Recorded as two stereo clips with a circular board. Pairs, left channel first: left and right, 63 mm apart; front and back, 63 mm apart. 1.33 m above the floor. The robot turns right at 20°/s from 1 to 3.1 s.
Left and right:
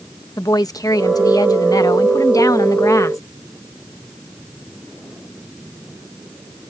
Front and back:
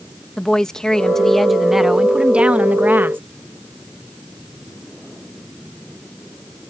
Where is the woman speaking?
80° left; by 3.2 s 125° left.